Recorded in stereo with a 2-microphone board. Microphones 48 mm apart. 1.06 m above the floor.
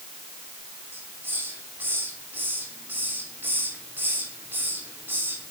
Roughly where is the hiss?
Right.